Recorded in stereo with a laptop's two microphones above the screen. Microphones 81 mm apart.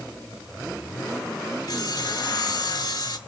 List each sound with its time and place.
1.7 s sawing: 55° left (ahead or behind), 1.5 m